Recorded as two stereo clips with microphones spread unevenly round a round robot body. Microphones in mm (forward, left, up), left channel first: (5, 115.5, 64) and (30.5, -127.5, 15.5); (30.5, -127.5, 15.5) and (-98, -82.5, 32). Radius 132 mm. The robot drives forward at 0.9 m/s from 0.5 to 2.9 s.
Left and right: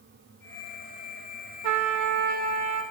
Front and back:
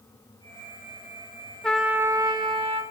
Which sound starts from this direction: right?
A trumpet, at 1.6 s.